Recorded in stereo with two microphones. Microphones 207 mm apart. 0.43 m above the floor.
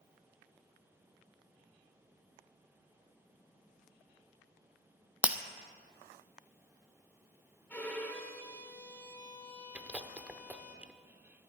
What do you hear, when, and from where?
5.2 s breaking glass: 5° right (ahead or behind), 0.7 m
7.7 s a violin: 10° left (ahead or behind), 1.5 m
9.8 s chewing: 5° right (ahead or behind), 0.7 m